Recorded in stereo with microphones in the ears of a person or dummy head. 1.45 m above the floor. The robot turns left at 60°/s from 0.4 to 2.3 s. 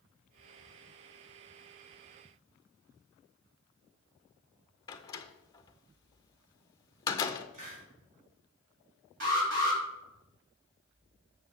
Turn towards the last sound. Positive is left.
turn(degrees=-60)  # may be behind; listen again after turning